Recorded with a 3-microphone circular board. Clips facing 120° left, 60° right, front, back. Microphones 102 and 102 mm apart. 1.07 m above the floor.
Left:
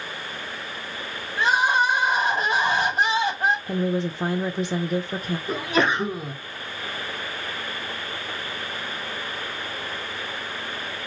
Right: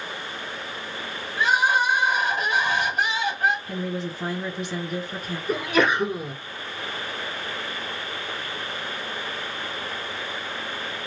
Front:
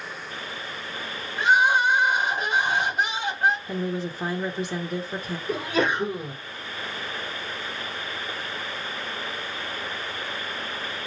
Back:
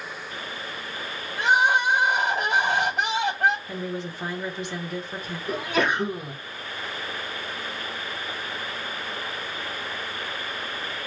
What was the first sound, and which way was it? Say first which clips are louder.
Crying: left 1 dB, front 1 dB; 175° left.